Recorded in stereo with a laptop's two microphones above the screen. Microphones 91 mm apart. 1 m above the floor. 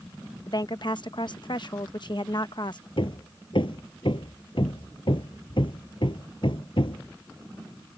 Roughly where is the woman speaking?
Left.